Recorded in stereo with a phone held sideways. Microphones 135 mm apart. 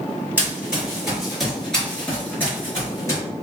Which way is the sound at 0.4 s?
10° right (ahead or behind).